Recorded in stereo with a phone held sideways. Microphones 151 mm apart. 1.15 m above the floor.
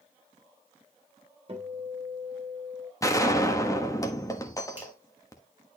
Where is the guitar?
40° right (ahead or behind), 2.5 m.